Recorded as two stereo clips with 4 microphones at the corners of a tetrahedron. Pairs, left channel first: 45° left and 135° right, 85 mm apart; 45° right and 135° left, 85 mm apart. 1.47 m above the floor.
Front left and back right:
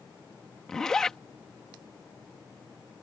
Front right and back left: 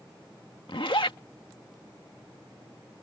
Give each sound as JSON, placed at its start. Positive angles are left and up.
{"t": 0.7, "sound": "a zipper", "azimuth_deg": -40}